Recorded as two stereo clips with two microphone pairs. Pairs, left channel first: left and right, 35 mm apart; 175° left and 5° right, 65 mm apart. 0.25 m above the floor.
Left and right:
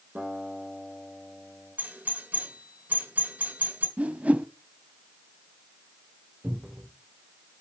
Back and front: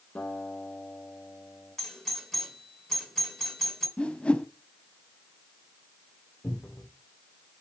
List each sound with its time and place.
0.1 s a guitar: 115° right, 6 m
1.8 s a doorbell: 105° right, 3 m
4.0 s a whoosh: 115° right, 0.6 m
6.4 s a cupboard door: 115° right, 3.5 m